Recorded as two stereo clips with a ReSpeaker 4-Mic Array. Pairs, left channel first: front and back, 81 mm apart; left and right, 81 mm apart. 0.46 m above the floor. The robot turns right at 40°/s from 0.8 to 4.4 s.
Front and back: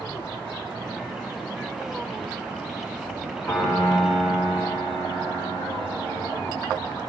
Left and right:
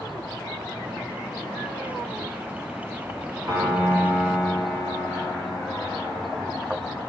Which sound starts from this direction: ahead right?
A piano, at 3.5 s.